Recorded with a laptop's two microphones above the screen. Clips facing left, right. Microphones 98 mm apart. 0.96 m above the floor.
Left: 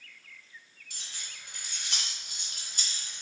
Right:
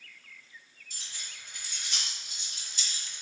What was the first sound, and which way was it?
Keys jangling, 75° left (ahead or behind).